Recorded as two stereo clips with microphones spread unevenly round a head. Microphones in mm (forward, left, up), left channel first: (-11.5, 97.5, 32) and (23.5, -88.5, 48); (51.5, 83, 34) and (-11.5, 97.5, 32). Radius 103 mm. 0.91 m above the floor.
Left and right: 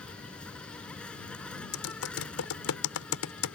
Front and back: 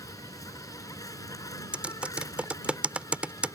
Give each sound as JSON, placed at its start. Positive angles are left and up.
{"t": 0.0, "sound": "an insect", "azimuth_deg": 15}
{"t": 1.7, "sound": "typing on a keyboard", "azimuth_deg": 95}